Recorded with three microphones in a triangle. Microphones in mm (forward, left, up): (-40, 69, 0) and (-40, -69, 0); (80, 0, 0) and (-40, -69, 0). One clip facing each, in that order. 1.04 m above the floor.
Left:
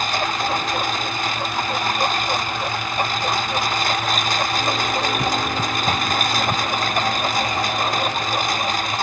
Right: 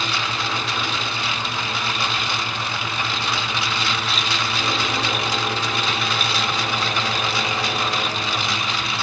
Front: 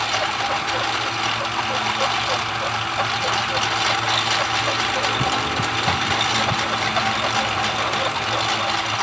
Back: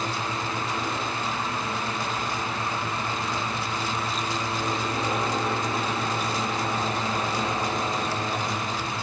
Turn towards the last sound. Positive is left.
turn(degrees=45)